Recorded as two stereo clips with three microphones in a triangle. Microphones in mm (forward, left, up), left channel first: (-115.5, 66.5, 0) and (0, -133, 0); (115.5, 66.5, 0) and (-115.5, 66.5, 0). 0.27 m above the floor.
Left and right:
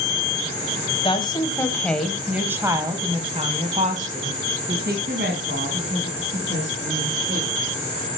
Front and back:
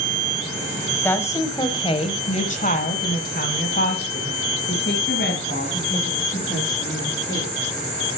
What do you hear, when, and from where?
1.0 s a woman speaking: 75° left, 1.4 m; by 7.7 s 35° right, 3.5 m